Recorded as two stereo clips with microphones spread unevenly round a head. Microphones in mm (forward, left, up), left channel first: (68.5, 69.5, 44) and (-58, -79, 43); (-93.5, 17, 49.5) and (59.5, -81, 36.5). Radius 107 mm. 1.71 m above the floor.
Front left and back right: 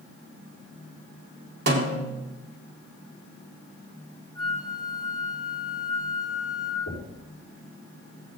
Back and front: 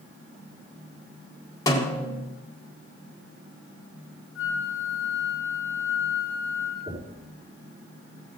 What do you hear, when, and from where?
1.7 s a snare drum: 155° right, 1.9 m
4.3 s a flute: 120° left, 1.4 m
6.9 s knocking: 35° left, 4.5 m